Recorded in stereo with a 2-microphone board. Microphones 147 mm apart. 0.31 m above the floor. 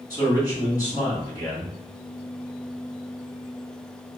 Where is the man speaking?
25° left (ahead or behind), 1.6 m.